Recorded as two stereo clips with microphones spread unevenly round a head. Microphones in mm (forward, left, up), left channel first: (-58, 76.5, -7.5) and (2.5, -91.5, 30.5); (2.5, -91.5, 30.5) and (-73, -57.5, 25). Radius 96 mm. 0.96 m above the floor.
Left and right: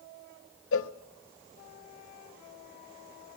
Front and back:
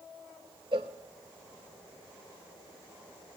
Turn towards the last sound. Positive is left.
turn(degrees=105)